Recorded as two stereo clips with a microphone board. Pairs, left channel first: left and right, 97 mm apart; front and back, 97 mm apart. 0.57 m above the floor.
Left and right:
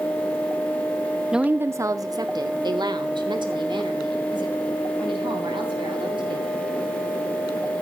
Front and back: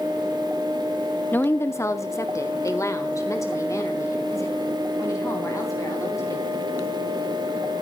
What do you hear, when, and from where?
1.3 s a woman speaking: 15° right, 0.6 m; by 6.6 s 55° right, 4.5 m